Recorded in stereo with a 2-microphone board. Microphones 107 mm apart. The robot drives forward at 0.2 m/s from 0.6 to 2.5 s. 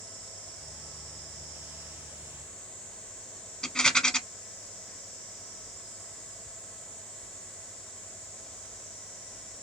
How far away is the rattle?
About 1.0 m.